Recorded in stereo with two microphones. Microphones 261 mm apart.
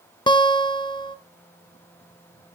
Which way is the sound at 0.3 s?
15° left (ahead or behind).